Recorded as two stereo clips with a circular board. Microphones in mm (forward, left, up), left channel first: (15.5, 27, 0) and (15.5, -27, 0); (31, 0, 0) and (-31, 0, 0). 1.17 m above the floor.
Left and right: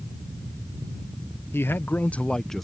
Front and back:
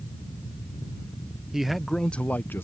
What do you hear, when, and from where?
1.5 s a man speaking: 100° left; by 2.6 s 5° left